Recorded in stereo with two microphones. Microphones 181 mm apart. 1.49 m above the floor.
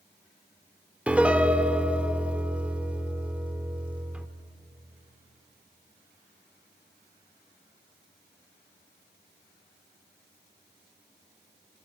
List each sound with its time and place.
1.1 s a piano: 5° right (ahead or behind), 1.1 m